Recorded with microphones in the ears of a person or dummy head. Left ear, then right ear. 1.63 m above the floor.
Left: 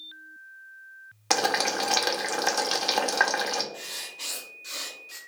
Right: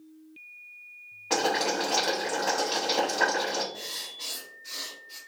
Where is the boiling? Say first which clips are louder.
Left 1 dB; 65° left (ahead or behind), 0.5 m.